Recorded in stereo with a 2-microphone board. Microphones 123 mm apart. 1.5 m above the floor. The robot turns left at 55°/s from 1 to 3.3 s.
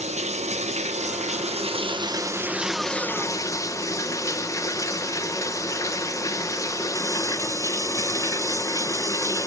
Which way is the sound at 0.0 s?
80° right.